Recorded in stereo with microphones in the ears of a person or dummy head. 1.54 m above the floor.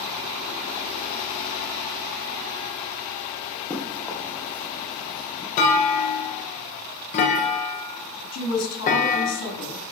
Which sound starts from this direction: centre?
Running footsteps, at 3.7 s.